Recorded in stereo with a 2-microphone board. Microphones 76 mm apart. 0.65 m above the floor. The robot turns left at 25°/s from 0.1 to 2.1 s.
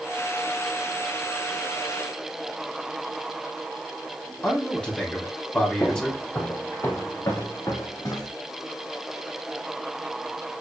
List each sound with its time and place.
4.4 s a man speaking: 15° left (ahead or behind), 1.8 m
5.8 s footsteps: 20° left (ahead or behind), 2.5 m; by 8.3 s 55° left (ahead or behind), 2.0 m